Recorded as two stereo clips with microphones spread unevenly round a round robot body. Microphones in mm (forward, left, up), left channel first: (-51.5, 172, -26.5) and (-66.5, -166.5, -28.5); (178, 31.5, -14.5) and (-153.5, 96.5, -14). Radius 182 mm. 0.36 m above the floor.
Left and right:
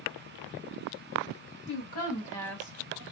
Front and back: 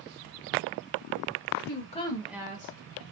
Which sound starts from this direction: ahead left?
A woman speaking, at 1.7 s.